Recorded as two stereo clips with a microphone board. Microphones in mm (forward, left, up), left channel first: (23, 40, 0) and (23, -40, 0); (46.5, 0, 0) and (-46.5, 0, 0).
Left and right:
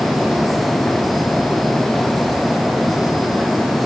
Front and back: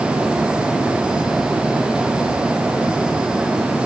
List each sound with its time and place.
Only background noise.